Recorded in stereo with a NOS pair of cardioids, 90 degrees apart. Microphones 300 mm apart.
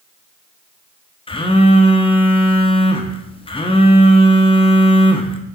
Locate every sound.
1.3 s a phone buzzing: 15° left, 1.2 m